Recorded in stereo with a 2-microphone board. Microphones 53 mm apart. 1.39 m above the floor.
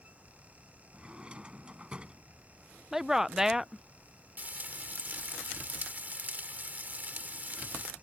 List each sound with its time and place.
0.9 s a drawer: 20° right (ahead or behind)
2.9 s a woman speaking: 5° right (ahead or behind)
4.4 s frying: 35° right (ahead or behind)